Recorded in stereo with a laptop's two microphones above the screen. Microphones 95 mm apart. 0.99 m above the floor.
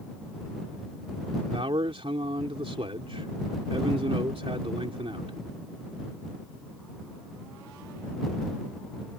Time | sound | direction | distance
1.5 | a man speaking | 85° right | ?